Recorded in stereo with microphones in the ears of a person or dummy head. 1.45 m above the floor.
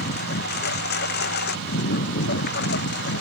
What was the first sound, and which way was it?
A lawn mower, 60° left (ahead or behind).